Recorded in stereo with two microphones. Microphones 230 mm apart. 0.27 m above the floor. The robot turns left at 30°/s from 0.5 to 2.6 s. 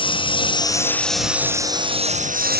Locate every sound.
0.0 s a lawn mower: 20° left (ahead or behind); by 2.6 s 45° right (ahead or behind)